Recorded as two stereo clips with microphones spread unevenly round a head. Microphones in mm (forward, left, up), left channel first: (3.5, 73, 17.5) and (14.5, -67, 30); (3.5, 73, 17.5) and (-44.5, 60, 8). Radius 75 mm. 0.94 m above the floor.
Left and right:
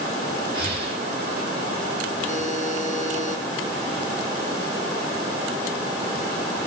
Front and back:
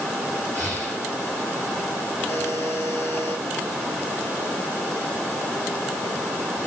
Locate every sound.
0.5 s breathing: 70° right, 8.5 m
2.3 s a buzzer: 50° right, 3.5 m